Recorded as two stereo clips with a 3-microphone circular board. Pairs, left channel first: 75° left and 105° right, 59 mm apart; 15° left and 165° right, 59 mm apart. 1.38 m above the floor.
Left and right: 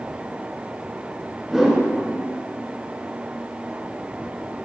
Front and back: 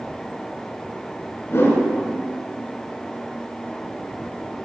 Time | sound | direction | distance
1.5 | a whoosh | 25° right | 3 m